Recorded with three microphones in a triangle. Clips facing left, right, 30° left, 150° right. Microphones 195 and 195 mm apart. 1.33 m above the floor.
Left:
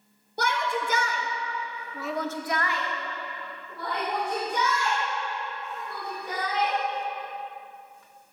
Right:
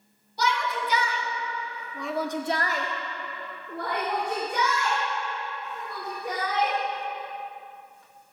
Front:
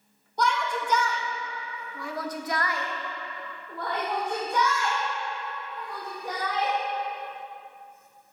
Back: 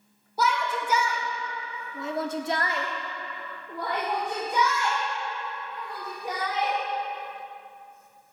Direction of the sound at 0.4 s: 125° left.